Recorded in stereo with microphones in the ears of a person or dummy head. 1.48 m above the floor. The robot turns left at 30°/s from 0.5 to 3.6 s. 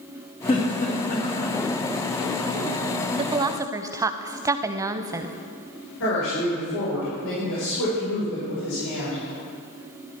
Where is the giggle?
30° left (ahead or behind), 2.5 m; by 1.6 s 60° left (ahead or behind), 2.5 m.